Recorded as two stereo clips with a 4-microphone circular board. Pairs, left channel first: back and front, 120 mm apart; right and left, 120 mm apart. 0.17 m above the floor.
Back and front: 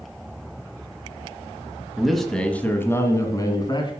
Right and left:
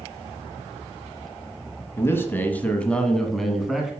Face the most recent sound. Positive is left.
turn(degrees=175)